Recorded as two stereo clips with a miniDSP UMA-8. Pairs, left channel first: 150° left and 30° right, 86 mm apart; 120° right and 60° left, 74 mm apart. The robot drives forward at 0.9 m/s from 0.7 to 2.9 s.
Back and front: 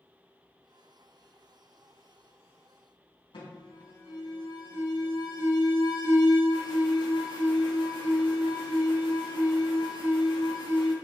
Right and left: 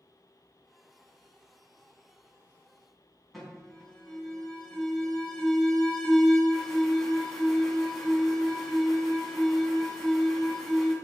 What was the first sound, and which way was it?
An alarm, 150° left.